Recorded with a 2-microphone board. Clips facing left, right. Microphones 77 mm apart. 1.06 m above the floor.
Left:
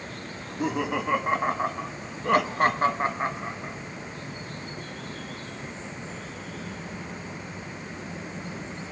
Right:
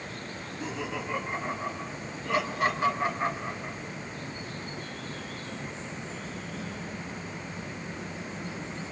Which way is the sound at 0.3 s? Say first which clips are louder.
Left 9 dB; 60° left (ahead or behind).